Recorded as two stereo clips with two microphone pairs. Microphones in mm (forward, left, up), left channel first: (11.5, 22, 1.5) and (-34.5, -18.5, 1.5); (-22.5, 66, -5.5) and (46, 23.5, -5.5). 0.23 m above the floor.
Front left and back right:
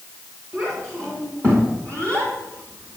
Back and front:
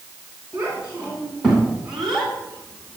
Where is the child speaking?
95° right, 1.9 m; by 3.0 s 150° right, 1.4 m.